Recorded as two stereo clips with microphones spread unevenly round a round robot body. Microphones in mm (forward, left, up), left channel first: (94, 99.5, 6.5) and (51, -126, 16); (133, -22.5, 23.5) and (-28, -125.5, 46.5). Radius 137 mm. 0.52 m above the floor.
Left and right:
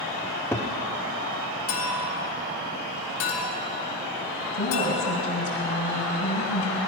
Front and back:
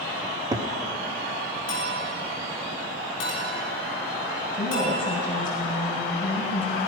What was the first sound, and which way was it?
A cupboard door, 150° left.